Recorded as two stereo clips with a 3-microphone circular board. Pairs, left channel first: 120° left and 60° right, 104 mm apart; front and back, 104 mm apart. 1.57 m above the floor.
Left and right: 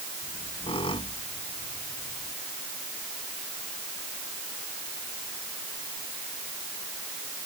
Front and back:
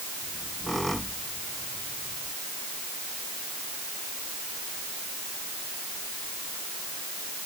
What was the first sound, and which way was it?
A squeak, 90° left.